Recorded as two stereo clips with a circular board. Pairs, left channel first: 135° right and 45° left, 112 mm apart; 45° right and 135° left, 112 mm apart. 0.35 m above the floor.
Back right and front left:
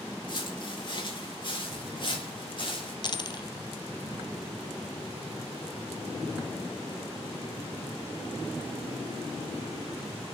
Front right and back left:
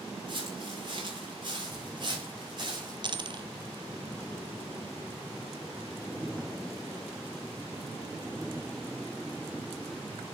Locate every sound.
0.3 s footsteps: straight behind, 7.5 m
3.0 s a dropped coin: straight behind, 0.8 m